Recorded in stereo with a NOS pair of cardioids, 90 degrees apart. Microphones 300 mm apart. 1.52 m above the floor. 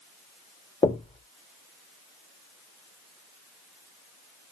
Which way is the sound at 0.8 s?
20° left.